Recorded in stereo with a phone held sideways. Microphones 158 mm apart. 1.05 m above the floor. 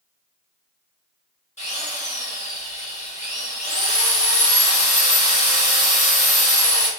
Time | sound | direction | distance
1.6 | a drill | 45° left (ahead or behind) | 1.1 m